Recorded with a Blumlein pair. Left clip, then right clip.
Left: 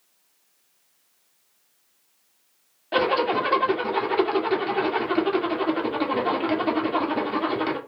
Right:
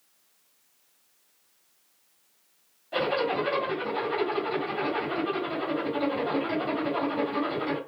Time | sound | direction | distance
2.9 | a zipper | 55° left | 0.9 m